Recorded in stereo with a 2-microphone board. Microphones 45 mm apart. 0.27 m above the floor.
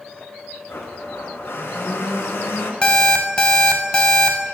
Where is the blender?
70° left (ahead or behind), 0.7 m.